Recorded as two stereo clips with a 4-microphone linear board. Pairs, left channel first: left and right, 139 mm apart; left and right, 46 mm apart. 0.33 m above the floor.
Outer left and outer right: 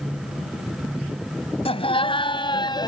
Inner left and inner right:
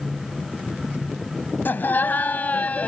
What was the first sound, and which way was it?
Laughter, 45° left (ahead or behind).